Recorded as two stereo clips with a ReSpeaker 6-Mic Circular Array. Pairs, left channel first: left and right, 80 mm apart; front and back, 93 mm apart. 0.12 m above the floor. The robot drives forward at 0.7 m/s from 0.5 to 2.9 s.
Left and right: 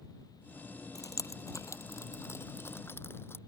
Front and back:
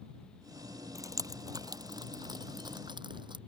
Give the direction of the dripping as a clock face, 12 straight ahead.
8 o'clock.